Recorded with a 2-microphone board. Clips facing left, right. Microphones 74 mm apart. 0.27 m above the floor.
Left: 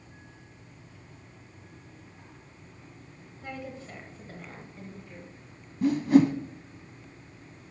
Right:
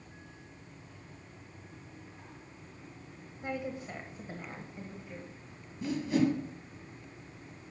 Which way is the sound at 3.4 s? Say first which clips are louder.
Right 3 dB; 20° right (ahead or behind).